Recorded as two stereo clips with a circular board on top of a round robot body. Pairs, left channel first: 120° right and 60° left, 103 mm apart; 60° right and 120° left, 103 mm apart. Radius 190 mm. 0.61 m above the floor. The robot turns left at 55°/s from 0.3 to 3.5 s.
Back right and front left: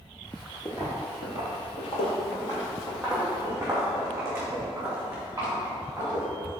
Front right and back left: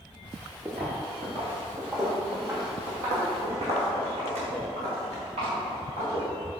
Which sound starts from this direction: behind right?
Footsteps, at 0.7 s.